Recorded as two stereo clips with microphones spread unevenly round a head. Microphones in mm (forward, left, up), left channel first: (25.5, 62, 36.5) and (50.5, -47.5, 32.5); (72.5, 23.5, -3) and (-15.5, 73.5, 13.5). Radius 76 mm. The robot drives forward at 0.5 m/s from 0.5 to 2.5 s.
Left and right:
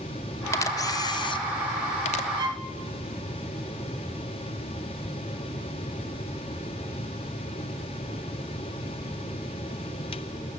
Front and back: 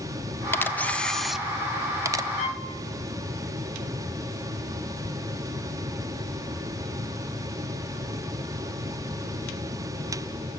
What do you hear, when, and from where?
0.5 s a camera shutter: 45° left, 0.9 m; by 2.3 s 120° left, 0.8 m
2.4 s a violin: 30° right, 1.6 m